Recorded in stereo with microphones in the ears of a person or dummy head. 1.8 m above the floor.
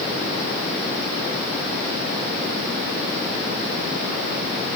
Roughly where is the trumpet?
No trumpet in this recording.